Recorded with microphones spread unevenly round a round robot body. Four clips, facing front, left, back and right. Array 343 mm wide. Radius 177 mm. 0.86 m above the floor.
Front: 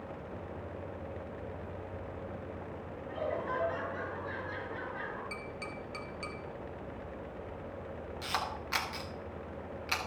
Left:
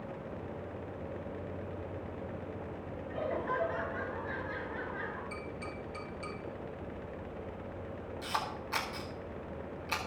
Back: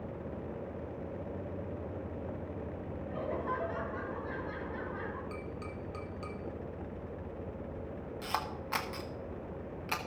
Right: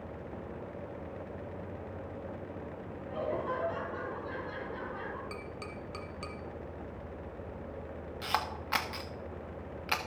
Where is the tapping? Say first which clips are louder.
Left 1 dB, even; 65° right, 2.5 m.